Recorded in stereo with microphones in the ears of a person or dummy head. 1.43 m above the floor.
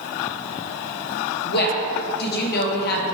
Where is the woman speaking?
55° left (ahead or behind), 1.3 m.